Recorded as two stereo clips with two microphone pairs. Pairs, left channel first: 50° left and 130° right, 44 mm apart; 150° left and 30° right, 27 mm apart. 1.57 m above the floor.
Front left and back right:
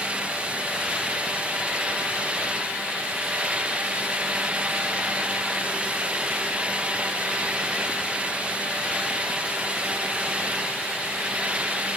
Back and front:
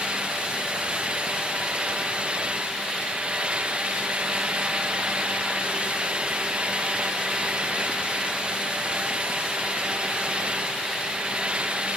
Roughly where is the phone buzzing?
No phone buzzing in this recording.